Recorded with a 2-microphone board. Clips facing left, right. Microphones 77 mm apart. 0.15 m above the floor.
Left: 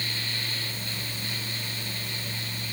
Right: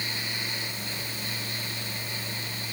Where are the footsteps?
No footsteps in this recording.